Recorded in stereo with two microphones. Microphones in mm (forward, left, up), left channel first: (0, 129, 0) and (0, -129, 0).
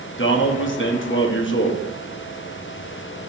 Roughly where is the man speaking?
Left.